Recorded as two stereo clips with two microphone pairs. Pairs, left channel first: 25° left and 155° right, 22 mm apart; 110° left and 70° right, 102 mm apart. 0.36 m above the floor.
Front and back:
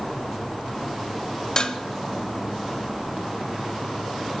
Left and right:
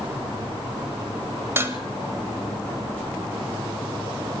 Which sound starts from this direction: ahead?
Dishes clattering, at 1.6 s.